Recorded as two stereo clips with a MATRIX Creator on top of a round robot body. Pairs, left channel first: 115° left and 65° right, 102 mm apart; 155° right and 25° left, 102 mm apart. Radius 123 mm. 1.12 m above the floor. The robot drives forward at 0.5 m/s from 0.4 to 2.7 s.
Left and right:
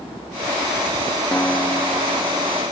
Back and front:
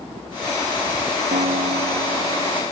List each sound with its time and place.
1.3 s a guitar: 35° left; by 2.6 s 50° left